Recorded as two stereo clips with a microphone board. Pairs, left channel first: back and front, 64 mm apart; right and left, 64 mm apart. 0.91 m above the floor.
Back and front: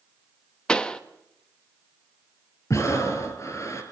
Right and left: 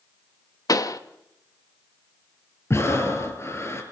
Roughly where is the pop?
Right.